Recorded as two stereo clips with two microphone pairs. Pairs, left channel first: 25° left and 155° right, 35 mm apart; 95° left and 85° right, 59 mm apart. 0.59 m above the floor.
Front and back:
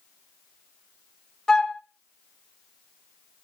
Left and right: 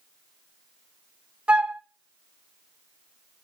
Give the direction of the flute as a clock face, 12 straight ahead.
1 o'clock.